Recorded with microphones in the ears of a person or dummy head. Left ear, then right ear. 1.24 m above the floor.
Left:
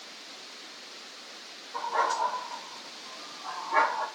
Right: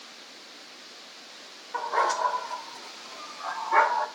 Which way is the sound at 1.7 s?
60° right (ahead or behind).